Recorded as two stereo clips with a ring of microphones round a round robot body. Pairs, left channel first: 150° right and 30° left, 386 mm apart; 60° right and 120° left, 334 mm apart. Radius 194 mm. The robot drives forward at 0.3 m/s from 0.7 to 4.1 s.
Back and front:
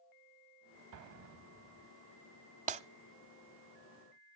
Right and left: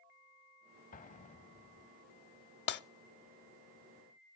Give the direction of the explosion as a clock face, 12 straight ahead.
12 o'clock.